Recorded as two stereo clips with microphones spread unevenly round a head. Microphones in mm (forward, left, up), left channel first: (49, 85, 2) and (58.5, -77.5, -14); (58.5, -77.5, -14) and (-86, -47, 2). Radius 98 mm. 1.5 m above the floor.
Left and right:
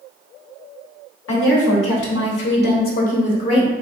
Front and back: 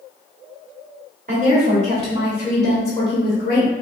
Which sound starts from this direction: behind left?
A woman speaking, at 1.3 s.